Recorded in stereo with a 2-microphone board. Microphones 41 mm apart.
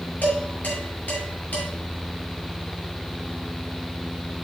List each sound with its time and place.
0.2 s dishes clattering: 40° left (ahead or behind), 6 m